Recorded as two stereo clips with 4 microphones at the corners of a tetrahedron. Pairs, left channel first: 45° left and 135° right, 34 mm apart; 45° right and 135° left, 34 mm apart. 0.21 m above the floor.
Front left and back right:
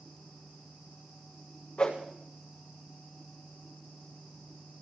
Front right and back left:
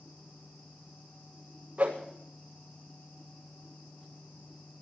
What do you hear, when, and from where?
1.8 s a whoosh: 95° left, 6 m